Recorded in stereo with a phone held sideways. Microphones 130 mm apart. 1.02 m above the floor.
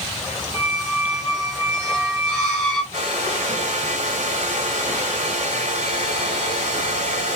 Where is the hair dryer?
70° right (ahead or behind), 1.9 m.